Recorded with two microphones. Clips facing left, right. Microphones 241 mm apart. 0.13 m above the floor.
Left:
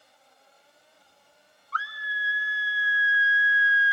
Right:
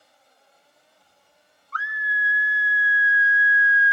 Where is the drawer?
No drawer in this recording.